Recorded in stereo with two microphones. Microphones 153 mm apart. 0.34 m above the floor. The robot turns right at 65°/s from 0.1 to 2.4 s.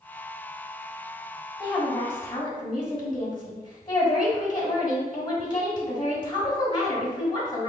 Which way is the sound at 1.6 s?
20° left.